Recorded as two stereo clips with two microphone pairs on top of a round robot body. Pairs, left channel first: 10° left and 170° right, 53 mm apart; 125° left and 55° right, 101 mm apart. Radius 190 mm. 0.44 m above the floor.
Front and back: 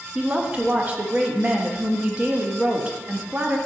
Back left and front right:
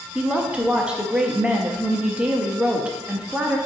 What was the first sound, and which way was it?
A woman speaking, 120° right.